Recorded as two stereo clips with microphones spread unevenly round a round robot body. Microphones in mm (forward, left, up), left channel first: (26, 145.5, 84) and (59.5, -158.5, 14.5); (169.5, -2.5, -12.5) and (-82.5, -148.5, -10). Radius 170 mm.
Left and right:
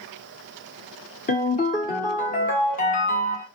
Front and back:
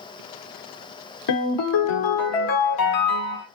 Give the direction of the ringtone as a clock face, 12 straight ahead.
11 o'clock.